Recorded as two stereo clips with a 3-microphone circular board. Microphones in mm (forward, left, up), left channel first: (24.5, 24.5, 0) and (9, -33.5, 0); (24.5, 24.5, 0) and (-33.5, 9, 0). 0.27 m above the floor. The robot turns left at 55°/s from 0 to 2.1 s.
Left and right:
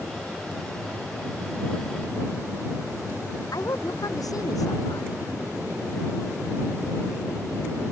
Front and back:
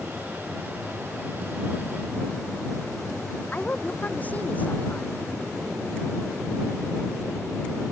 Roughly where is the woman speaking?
Left.